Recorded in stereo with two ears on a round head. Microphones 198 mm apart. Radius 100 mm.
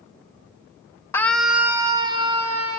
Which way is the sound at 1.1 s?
10° left (ahead or behind).